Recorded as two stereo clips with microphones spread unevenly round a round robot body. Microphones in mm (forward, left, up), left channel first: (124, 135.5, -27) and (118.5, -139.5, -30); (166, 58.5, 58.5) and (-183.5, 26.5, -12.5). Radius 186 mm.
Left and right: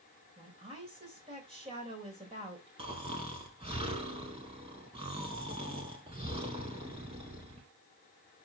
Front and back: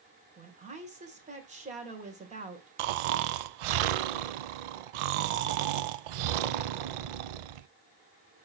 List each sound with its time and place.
0.4 s a woman speaking: 150° right, 1.6 m
2.8 s snoring: 165° right, 0.5 m